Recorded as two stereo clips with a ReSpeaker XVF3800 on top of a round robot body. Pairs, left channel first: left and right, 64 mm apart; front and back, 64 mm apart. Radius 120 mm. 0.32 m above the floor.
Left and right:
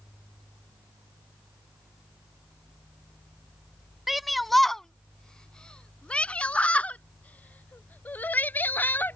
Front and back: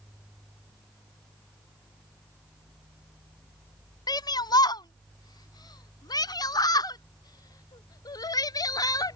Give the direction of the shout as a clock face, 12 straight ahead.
12 o'clock.